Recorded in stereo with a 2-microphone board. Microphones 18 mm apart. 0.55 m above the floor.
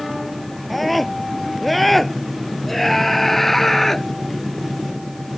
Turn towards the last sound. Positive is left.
turn(degrees=15)  # may be behind; listen again after turning